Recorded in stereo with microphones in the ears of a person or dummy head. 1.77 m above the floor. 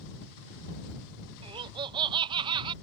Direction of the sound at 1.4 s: 25° right (ahead or behind).